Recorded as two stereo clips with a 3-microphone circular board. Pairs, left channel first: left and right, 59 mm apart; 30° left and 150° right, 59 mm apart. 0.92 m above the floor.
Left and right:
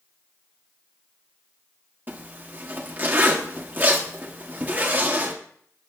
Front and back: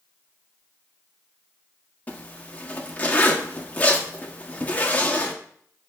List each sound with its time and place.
2.1 s a zipper: 35° right, 1.5 m